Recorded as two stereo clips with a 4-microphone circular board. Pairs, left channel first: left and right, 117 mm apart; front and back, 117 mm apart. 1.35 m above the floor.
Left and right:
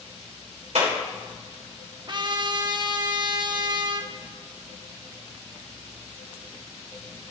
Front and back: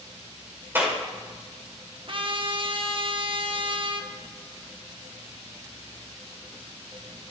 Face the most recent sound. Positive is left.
turn(degrees=-140)